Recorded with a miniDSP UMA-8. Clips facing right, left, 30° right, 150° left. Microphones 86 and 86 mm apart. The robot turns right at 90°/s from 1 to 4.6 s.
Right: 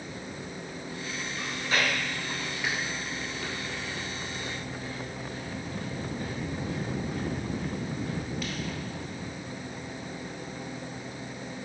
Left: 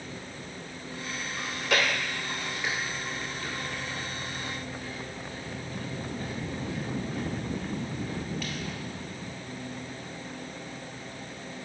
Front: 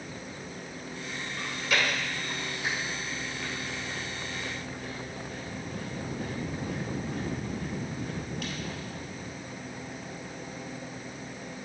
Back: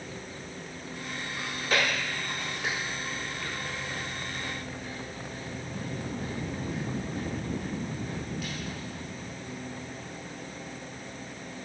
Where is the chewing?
65° left, 2.0 m; by 8.8 s 5° right, 2.0 m.